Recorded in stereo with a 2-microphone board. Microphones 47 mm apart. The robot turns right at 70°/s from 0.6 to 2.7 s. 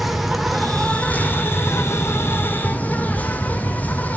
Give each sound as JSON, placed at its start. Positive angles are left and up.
{"t": 0.0, "sound": "an insect", "azimuth_deg": -5, "distance_m": 1.1}